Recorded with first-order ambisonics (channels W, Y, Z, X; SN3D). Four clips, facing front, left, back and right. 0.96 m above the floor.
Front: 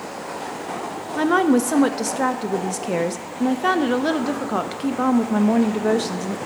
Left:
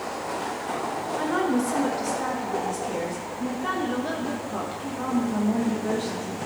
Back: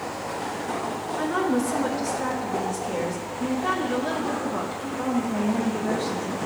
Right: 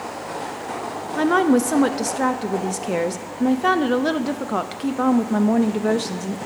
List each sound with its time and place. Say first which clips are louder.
1.1 s a woman speaking: right 8 dB, front 7 dB; 45° right, 0.6 m